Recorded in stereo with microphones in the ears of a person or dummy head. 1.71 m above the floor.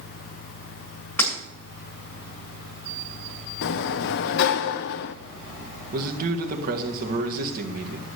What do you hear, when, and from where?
1.2 s breaking glass: 10° left (ahead or behind), 7.5 m
3.6 s a sliding door: 60° left (ahead or behind), 0.6 m
5.9 s a man speaking: 50° right (ahead or behind), 1.7 m